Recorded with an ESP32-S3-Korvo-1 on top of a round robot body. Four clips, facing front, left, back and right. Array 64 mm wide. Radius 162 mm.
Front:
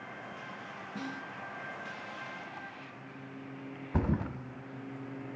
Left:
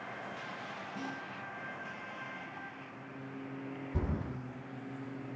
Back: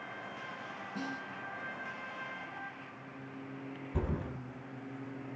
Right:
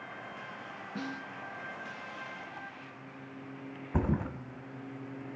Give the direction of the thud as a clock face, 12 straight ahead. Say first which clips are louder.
Right 7 dB, front 5 dB; 2 o'clock.